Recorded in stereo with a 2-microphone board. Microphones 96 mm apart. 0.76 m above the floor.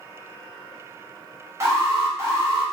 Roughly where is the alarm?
Right.